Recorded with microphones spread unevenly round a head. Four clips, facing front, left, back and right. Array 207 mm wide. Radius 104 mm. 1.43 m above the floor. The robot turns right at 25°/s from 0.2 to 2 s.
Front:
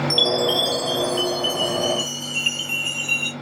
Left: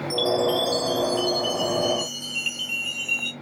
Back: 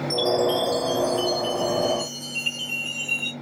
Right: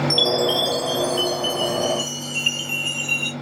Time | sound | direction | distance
0.1 | a chime | 40° right | 3 m